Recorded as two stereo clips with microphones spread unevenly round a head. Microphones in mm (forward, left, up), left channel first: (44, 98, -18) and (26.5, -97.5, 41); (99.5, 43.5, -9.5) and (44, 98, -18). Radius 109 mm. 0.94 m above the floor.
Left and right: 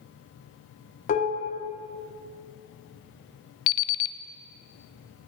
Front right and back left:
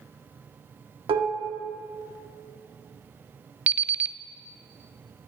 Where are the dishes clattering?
140° left, 1.1 m.